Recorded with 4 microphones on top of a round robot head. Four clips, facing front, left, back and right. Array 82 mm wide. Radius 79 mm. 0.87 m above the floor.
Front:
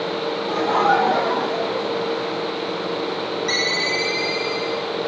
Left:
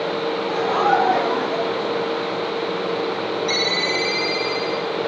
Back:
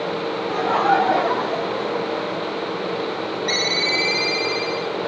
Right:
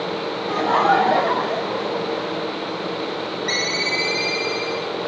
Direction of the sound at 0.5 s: 90° right.